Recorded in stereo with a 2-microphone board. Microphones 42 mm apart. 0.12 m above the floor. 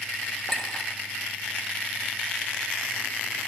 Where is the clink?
15° left (ahead or behind), 1.1 m.